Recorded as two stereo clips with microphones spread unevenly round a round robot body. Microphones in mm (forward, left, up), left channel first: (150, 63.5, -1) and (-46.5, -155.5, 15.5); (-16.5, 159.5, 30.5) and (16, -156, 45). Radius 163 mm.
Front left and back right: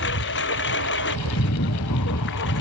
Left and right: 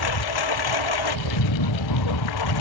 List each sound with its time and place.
0.0 s a lawn mower: 105° left